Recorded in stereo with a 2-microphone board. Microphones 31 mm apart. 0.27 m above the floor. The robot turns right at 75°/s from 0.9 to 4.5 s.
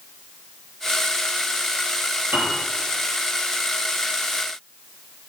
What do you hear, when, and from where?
2.3 s a piano: 75° right (ahead or behind), 3.5 m; by 2.6 s 80° right, 3.5 m